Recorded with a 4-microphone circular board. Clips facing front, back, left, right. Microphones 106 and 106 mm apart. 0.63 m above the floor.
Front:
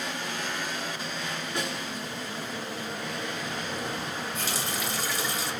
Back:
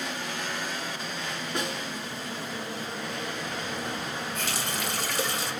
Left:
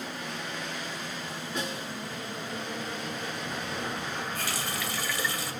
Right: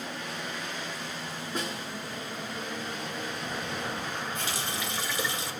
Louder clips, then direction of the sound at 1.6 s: Back 2 dB, even; 140° right.